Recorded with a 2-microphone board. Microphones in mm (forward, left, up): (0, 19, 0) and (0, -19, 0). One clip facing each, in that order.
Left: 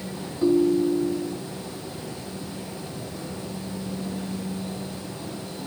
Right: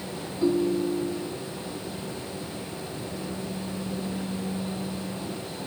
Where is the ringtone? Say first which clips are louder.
Left 4 dB; 5° left (ahead or behind), 0.9 m.